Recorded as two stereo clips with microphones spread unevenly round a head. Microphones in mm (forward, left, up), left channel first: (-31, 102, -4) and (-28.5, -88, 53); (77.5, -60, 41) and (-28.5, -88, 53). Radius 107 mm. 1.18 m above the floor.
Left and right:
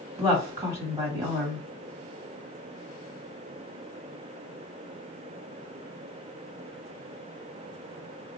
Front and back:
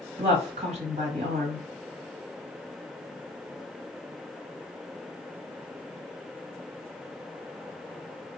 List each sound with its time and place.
0.2 s a woman speaking: 165° right, 1.8 m